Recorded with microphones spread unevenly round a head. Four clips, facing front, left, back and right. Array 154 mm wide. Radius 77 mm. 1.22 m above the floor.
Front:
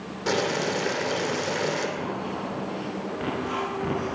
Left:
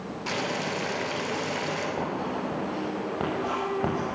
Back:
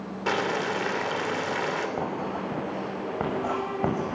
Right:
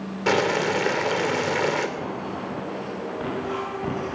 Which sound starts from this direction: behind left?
Writing, at 2.0 s.